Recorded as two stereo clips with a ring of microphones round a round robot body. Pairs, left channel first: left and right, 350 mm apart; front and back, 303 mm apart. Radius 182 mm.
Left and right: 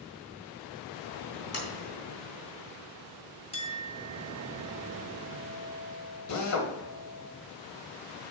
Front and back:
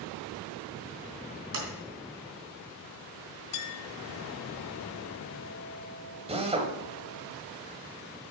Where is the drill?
115° left, 1.8 m.